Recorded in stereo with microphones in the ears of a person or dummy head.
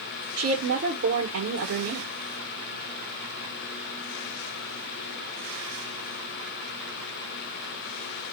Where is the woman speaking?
70° right (ahead or behind), 1.4 m.